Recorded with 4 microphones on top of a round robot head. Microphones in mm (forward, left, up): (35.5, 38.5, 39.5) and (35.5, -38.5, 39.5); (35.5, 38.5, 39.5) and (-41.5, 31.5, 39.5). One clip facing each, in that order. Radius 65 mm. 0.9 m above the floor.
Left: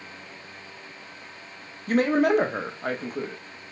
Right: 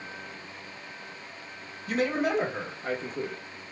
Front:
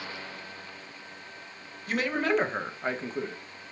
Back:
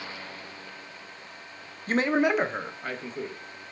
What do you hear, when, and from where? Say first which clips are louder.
1.9 s a man speaking: left 6 dB, back 4 dB; 135° left, 0.6 m; by 3.4 s 50° left, 0.7 m